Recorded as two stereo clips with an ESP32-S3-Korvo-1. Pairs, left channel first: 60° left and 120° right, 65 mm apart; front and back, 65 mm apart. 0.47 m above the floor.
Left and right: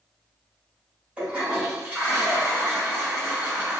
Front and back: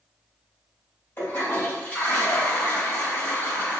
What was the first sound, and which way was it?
A toilet flushing, 55° right.